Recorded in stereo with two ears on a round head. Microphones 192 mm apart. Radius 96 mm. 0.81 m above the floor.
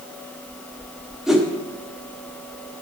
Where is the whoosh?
Centre (ahead or behind), 0.7 m.